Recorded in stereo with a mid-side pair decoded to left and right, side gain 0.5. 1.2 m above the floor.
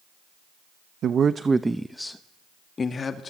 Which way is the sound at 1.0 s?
55° right.